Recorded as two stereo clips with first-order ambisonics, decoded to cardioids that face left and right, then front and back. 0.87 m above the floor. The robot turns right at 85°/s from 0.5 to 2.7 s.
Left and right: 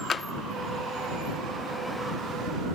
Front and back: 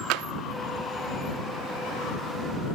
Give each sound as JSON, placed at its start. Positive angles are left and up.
{"t": 0.1, "sound": "tapping", "azimuth_deg": 160}